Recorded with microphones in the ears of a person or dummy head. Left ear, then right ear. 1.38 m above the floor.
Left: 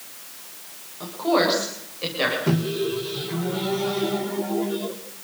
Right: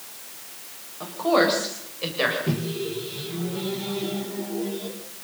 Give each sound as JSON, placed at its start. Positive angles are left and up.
{"t": 1.0, "sound": "a woman speaking", "side_deg": -15, "distance_m": 8.0}
{"t": 2.5, "sound": "a microwave", "side_deg": 55, "distance_m": 3.0}